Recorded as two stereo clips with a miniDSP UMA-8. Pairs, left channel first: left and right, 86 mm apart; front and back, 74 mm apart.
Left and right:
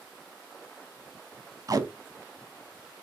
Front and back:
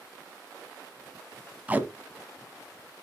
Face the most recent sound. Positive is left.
turn(degrees=-120)